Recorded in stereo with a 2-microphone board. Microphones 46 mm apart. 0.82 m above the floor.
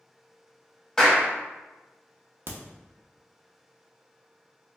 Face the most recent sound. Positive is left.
turn(degrees=-45)  # may be behind; listen again after turning